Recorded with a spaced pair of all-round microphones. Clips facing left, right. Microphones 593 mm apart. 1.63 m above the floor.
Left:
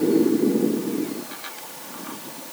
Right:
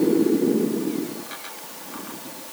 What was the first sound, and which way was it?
Only background noise.